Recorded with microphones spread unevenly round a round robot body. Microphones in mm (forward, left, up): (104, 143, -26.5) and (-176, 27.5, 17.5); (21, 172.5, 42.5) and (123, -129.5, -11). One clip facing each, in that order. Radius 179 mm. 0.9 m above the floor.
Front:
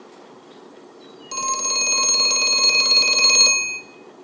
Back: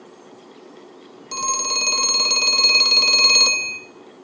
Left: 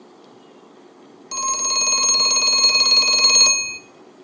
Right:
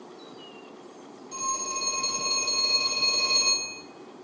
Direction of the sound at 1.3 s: 115° left.